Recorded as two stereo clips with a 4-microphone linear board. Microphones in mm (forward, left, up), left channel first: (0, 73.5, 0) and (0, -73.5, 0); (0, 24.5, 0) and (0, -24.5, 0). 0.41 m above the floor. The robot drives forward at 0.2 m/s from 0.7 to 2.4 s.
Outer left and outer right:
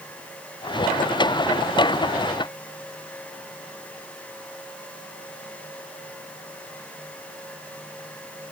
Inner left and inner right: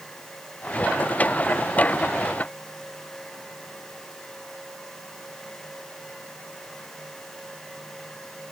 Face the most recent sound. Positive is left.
No sound to turn to.